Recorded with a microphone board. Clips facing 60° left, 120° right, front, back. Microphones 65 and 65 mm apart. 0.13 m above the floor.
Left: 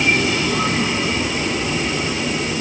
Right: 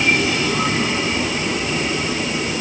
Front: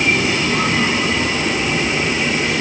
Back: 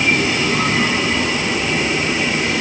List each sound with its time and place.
Only background noise.